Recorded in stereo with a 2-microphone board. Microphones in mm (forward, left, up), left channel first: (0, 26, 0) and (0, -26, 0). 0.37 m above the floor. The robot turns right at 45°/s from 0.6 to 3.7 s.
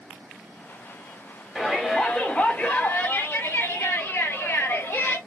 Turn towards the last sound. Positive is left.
turn(degrees=90)